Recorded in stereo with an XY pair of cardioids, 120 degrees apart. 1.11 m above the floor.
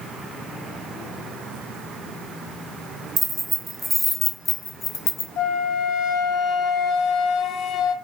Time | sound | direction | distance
3.2 | keys jangling | 25° right | 1.0 m
5.4 | a flute | 70° left | 0.6 m